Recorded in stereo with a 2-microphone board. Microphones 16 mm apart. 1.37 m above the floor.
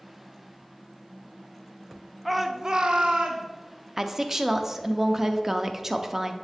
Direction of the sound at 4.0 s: 15° right (ahead or behind).